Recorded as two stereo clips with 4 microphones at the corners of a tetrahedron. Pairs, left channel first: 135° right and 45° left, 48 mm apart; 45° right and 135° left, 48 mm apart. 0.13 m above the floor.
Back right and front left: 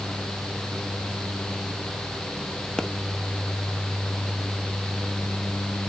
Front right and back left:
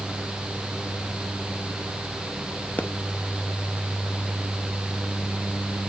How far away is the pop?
About 0.6 m.